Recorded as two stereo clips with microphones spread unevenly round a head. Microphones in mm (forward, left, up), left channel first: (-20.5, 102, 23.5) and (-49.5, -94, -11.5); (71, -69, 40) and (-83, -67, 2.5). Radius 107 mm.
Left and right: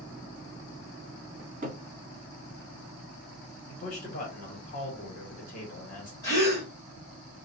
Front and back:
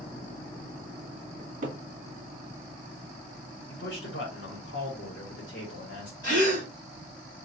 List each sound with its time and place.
1.4 s a cupboard door: 145° right, 1.2 m
3.7 s a man speaking: 25° left, 1.4 m
6.2 s a gasp: 30° left, 1.8 m